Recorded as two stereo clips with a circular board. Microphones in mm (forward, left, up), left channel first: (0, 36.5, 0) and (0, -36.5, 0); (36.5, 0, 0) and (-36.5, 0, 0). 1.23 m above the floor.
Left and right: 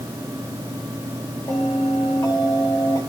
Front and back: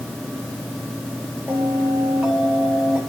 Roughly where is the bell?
Left.